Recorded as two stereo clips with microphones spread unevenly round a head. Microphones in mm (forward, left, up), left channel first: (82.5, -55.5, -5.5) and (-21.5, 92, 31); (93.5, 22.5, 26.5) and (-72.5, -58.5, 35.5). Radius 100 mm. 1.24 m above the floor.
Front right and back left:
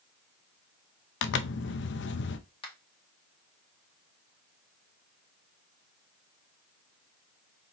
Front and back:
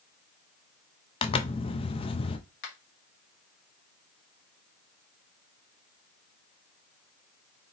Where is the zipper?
35° right, 0.6 m.